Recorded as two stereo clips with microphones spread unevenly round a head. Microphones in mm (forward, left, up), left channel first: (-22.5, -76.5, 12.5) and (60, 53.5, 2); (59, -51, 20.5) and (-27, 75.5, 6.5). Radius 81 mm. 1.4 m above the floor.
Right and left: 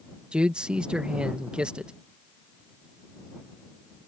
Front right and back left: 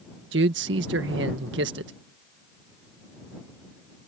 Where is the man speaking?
140° left.